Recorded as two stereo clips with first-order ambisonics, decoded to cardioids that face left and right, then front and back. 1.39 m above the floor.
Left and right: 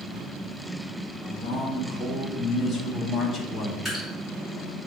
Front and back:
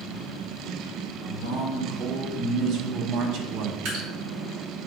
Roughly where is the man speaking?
Behind.